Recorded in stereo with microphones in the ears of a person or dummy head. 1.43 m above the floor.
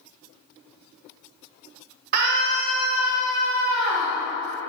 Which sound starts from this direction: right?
A scream, at 2.1 s.